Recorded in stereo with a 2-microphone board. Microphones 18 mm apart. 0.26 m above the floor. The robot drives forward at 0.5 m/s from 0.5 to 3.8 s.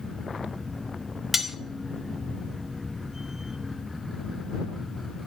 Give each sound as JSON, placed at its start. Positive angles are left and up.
{"t": 1.3, "sound": "cutlery clinking", "side_deg": -10, "distance_m": 0.7}